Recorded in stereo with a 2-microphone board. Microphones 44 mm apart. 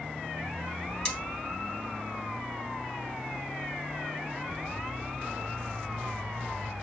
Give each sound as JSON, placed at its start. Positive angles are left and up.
{"t": 1.1, "sound": "cutlery clinking", "side_deg": 20, "distance_m": 0.7}